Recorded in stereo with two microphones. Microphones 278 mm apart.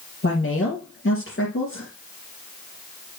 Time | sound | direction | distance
0.2 | a woman speaking | 45° left (ahead or behind) | 3.5 m